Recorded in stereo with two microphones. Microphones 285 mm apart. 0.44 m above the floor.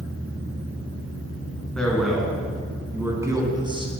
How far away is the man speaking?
About 4 m.